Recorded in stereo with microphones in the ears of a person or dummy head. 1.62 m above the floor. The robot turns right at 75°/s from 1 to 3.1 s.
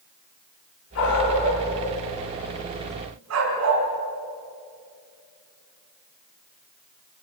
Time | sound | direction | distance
0.9 | a dog barking | 75° left (ahead or behind) | 6 m